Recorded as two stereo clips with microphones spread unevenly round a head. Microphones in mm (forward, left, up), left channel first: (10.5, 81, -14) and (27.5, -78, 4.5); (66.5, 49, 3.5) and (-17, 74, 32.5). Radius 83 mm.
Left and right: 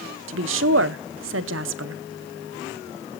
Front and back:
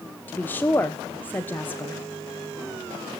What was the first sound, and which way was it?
A woman speaking, 85° right.